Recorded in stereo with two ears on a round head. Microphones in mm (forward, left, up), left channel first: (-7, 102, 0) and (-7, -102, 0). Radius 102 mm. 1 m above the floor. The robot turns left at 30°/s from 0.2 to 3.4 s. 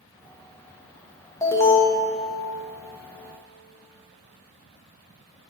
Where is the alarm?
15° left (ahead or behind), 0.6 m; by 2.0 s 5° left (ahead or behind), 0.6 m.